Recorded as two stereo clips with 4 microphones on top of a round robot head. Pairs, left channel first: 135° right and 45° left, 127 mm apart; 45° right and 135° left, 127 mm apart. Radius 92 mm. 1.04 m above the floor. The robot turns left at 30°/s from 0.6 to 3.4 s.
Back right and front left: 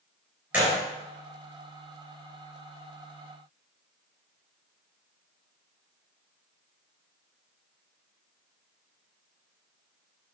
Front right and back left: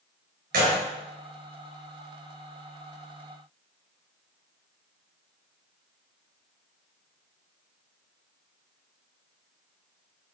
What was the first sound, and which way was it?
A gunshot, 125° left.